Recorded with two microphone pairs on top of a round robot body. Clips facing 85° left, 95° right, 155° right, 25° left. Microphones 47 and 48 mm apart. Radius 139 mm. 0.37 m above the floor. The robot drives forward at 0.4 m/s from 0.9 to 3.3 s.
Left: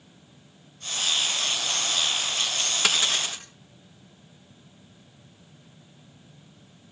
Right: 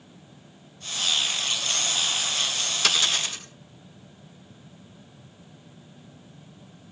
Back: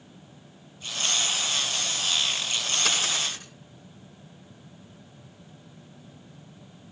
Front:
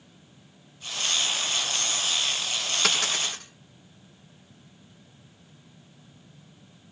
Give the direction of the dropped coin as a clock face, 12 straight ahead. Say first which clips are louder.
Right 1 dB, front 3 dB; 11 o'clock.